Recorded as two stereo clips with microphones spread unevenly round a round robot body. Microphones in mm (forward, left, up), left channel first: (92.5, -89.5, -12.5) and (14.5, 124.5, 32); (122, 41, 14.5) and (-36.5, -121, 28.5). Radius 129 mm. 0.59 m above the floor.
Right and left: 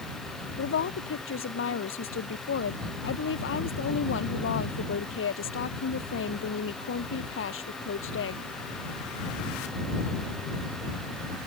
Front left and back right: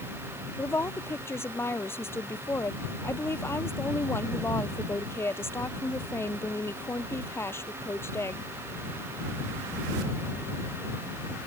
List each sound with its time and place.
0.6 s a woman speaking: 35° right